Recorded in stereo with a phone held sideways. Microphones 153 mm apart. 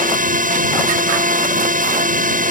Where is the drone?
60° right (ahead or behind).